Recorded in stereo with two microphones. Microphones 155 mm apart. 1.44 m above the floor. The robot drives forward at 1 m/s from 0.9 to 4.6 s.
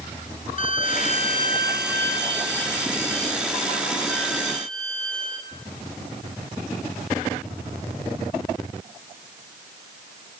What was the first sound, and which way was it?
A violin, 55° left (ahead or behind).